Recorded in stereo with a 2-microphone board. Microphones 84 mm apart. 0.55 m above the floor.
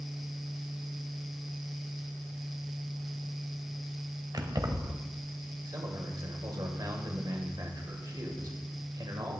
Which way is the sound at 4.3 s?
50° right (ahead or behind).